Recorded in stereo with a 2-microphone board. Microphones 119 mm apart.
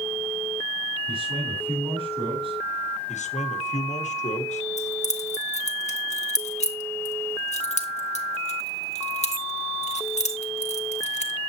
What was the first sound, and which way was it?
A man speaking, 55° right (ahead or behind).